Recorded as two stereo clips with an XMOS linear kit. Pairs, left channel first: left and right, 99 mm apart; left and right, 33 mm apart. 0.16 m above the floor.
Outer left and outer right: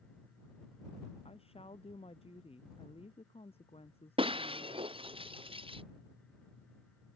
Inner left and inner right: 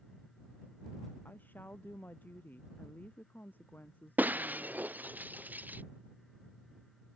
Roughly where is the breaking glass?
Right.